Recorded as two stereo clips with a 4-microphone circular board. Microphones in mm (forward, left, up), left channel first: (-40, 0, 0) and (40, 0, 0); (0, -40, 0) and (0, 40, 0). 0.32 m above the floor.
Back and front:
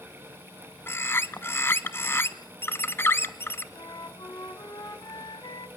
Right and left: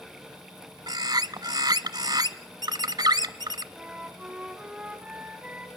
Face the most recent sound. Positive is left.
turn(degrees=165)